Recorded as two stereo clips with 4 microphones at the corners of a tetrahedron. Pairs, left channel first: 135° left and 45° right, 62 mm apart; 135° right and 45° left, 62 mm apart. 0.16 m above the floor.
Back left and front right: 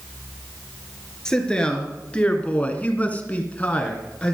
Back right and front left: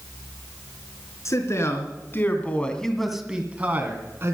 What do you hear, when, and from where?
1.2 s a man speaking: 150° right, 3 m; by 4.3 s 70° left, 2.5 m